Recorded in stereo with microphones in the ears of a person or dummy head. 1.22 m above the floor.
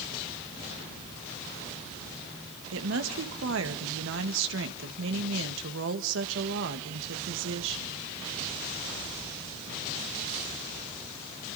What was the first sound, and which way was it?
A woman speaking, 75° right (ahead or behind).